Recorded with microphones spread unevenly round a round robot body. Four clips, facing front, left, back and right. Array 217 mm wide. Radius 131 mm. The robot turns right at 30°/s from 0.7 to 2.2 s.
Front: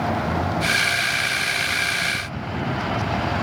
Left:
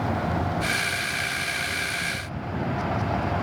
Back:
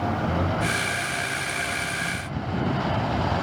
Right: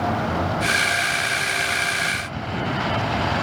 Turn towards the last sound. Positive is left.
No sound to turn to.